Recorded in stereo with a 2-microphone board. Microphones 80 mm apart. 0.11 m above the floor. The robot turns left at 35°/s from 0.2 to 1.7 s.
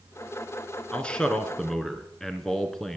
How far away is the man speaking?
About 1.1 m.